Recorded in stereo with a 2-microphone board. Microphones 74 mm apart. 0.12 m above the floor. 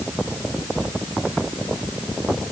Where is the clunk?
I don't hear a clunk.